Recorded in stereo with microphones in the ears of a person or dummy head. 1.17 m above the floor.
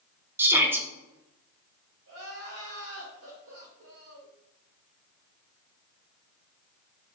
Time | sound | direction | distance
0.4 | a shout | 10° right (ahead or behind) | 0.8 m
2.1 | crying | 75° right (ahead or behind) | 1.9 m